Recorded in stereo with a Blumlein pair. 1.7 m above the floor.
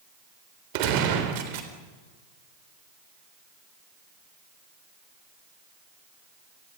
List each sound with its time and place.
0.7 s a gunshot: 45° right, 3.5 m